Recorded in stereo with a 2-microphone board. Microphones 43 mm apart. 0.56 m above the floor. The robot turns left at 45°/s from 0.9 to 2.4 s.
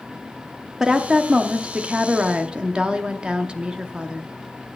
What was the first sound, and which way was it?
A woman speaking, 15° right (ahead or behind).